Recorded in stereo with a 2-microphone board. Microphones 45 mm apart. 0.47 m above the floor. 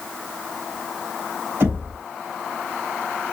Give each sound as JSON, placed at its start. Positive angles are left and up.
{"t": 1.6, "sound": "knocking", "side_deg": -70, "distance_m": 2.5}